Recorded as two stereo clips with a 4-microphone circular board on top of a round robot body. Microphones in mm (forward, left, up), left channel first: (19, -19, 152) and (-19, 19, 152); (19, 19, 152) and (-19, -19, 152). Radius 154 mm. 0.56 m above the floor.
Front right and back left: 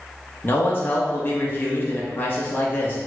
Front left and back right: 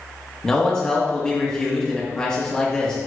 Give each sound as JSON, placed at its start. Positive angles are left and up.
{"t": 0.4, "sound": "a man speaking", "azimuth_deg": -25, "distance_m": 0.9}